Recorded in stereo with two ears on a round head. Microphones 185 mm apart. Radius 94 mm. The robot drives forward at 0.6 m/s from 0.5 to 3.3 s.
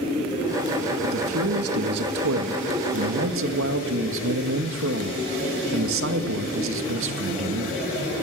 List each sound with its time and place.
1.0 s a man speaking: 65° right (ahead or behind), 2 m; by 7.8 s 75° right (ahead or behind), 1.9 m